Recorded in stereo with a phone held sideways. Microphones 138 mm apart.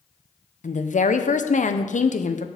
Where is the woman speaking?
65° left (ahead or behind), 0.7 m.